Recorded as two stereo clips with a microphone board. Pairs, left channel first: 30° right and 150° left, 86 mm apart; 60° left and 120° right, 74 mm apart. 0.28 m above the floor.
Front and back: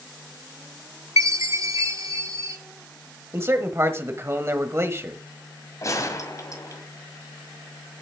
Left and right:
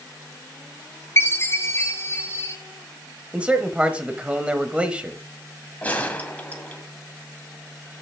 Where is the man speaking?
Straight behind, 1.1 m.